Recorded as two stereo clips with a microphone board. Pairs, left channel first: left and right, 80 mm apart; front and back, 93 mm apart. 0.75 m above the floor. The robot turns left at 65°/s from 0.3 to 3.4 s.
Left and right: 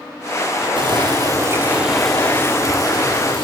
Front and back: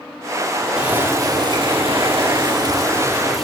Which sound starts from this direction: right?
Boiling, at 0.8 s.